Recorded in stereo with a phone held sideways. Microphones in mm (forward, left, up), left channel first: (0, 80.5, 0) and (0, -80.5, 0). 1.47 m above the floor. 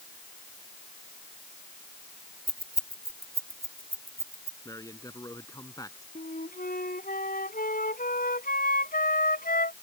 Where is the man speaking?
20° left (ahead or behind).